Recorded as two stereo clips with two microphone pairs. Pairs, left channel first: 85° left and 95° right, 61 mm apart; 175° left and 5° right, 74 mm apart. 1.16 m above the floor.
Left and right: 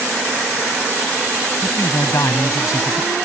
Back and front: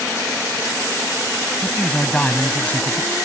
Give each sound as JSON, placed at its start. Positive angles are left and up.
{"t": 1.6, "sound": "a man speaking", "azimuth_deg": 95}